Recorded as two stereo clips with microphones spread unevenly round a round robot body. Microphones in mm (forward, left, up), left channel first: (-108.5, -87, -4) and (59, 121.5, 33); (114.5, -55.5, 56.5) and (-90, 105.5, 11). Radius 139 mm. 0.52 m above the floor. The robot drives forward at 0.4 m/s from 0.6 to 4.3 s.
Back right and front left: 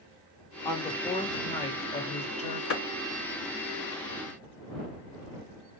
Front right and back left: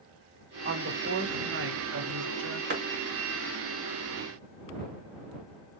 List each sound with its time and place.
0.7 s a woman speaking: 165° left, 1.0 m; by 2.6 s 170° left, 1.7 m
2.7 s a clap: 170° right, 2.5 m